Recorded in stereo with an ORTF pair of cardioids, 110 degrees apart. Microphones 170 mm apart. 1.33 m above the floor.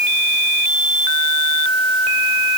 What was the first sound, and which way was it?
Only background noise.